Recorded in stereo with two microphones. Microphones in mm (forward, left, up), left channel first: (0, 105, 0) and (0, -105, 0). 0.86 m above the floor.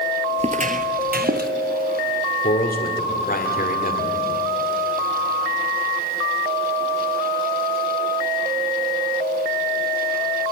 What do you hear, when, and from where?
0.4 s footsteps: 30° right (ahead or behind), 0.9 m; by 1.5 s 50° right (ahead or behind), 1.5 m
2.4 s a man speaking: 45° left (ahead or behind), 2.5 m